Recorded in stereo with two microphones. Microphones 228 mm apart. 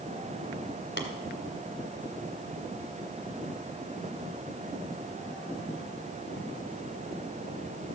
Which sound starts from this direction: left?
Tapping, at 1.0 s.